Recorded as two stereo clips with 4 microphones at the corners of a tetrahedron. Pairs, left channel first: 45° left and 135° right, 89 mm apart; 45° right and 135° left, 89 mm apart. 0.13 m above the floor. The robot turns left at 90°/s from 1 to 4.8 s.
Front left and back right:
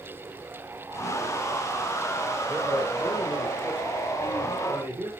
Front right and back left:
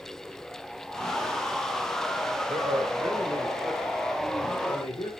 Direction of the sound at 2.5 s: 145° left.